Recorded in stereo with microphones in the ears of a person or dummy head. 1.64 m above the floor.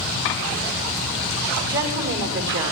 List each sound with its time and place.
1.6 s a woman speaking: 65° right (ahead or behind), 4.5 m